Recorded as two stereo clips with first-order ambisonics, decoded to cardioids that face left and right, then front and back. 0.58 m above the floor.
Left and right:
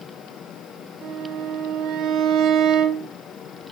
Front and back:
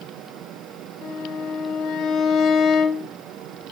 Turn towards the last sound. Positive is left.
turn(degrees=-50)